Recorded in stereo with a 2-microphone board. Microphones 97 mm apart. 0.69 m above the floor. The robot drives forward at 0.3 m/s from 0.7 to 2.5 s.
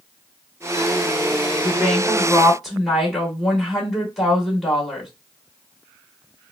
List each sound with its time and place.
1.6 s a woman speaking: centre (ahead or behind), 2.5 m